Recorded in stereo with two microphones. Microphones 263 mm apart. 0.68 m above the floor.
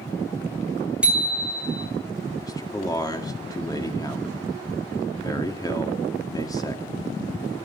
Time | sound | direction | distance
1.0 | a bicycle bell | 5° right (ahead or behind) | 3 m
2.4 | a man speaking | 15° left (ahead or behind) | 1.6 m